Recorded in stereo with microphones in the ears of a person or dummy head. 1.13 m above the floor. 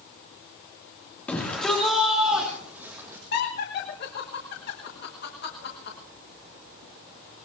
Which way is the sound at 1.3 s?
10° left (ahead or behind).